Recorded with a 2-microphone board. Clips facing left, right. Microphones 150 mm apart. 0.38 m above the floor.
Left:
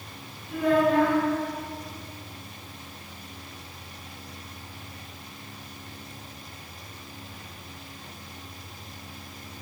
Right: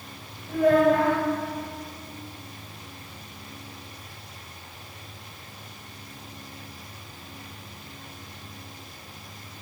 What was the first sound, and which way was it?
A child speaking, 45° right (ahead or behind).